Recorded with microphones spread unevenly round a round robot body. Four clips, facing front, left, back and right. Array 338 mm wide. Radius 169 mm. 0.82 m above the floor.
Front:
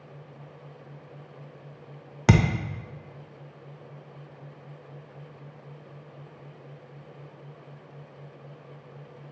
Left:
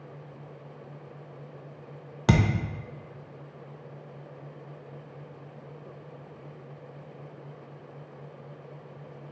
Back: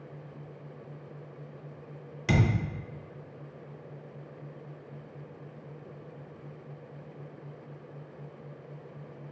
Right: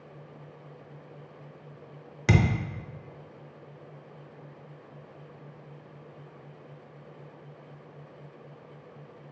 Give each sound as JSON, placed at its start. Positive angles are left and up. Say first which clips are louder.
{"t": 2.3, "sound": "a thud", "louder": "left 1 dB, front 5 dB", "azimuth_deg": 20, "distance_m": 0.6}